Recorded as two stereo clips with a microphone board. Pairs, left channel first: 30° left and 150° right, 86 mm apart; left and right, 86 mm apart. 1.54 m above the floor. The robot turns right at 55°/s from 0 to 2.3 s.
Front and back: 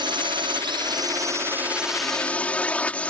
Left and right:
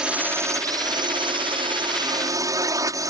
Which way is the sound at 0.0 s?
170° right.